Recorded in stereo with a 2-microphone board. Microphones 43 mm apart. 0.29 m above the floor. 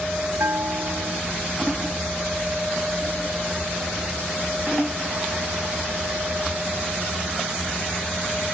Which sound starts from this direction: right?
A bell, at 0.4 s.